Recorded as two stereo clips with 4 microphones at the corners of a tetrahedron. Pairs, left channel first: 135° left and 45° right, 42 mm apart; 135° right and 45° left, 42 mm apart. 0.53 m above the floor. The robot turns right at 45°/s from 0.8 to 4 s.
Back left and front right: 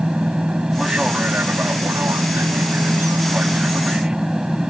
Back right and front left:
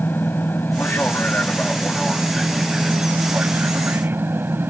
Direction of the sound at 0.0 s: 115° right.